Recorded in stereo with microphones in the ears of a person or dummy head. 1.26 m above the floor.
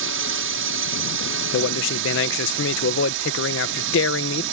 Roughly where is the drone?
Right.